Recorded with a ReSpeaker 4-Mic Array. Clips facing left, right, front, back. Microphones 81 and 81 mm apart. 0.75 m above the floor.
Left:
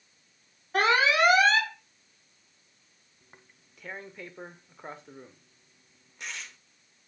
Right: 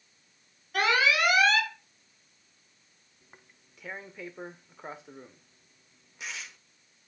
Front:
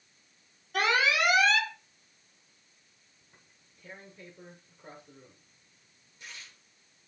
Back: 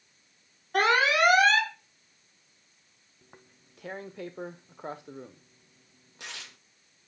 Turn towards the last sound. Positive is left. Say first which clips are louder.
# even, back 10 dB
turn(degrees=180)